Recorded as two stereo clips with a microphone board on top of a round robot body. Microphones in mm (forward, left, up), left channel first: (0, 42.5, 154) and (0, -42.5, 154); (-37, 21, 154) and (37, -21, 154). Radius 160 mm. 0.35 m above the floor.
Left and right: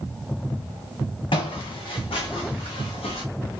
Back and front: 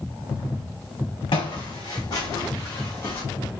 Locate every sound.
1.3 s footsteps: 120° left, 1.8 m; by 3.2 s 80° left, 1.8 m